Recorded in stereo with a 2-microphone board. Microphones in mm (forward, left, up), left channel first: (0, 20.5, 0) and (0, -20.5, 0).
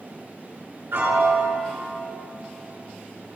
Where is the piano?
60° right (ahead or behind), 8 m.